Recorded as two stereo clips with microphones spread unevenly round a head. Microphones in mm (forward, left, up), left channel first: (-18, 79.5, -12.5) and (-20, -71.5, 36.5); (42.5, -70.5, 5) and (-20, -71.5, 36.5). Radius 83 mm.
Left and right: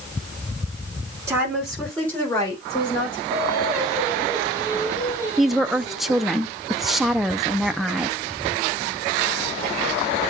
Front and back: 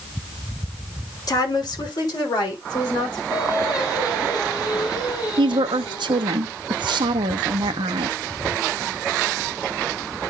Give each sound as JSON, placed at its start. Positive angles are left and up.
{"t": 1.3, "sound": "a woman speaking", "azimuth_deg": -15, "distance_m": 2.5}
{"t": 3.3, "sound": "singing", "azimuth_deg": -15, "distance_m": 3.0}
{"t": 5.4, "sound": "a woman speaking", "azimuth_deg": 170, "distance_m": 0.7}